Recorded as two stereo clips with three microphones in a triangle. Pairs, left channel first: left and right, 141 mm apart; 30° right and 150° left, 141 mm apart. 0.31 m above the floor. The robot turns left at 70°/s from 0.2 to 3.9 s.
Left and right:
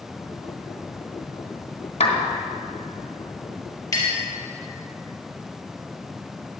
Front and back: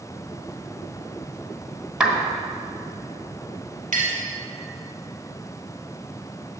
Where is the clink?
155° left, 2.5 m.